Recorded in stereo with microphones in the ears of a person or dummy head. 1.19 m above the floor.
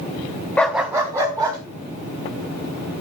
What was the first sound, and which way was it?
A dog barking, centre (ahead or behind).